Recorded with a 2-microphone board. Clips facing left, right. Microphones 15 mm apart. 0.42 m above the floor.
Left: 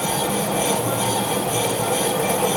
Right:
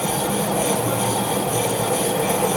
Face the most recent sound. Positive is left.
No sound to turn to.